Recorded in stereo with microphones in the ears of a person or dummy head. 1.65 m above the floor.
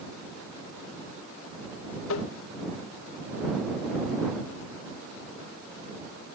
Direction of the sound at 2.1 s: 75° left (ahead or behind).